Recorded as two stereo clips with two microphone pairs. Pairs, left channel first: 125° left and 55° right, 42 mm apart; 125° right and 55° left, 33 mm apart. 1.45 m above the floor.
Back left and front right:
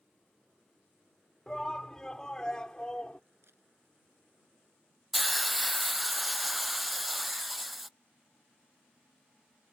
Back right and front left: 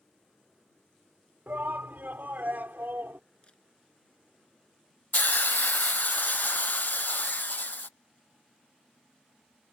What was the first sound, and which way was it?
A shout, 50° left.